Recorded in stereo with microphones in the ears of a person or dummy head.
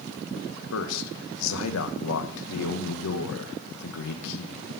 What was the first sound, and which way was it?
A man speaking, 70° left (ahead or behind).